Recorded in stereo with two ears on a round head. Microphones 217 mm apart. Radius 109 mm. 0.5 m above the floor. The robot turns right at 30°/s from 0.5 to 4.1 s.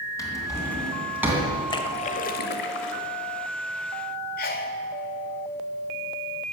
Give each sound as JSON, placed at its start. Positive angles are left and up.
{"t": 0.2, "sound": "a drawer", "side_deg": 15, "distance_m": 2.0}
{"t": 1.7, "sound": "a splash", "azimuth_deg": 20, "distance_m": 0.9}
{"t": 4.4, "sound": "a sneeze", "side_deg": 40, "distance_m": 1.4}